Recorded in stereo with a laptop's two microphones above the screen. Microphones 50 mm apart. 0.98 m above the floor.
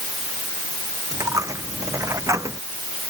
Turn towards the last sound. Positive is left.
turn(degrees=-75)  # may be behind; listen again after turning